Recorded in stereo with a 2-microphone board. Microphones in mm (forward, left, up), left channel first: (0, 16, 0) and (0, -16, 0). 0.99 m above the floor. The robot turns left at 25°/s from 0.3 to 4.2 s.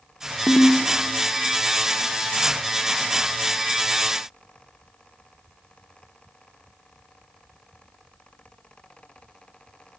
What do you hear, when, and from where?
0.5 s a ringtone: 30° left (ahead or behind), 0.8 m; by 0.8 s 25° left (ahead or behind), 0.8 m